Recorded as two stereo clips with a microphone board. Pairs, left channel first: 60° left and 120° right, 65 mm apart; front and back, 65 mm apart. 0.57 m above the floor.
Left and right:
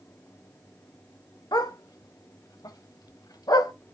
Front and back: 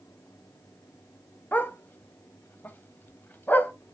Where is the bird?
I don't hear a bird.